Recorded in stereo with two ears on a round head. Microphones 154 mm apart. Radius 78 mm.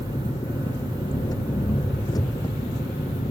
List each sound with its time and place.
0.0 s an engine running: 20° left (ahead or behind)